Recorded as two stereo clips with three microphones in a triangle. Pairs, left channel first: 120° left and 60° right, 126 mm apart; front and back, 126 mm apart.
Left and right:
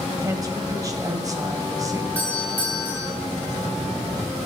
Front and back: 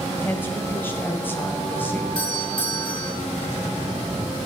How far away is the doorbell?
About 5 m.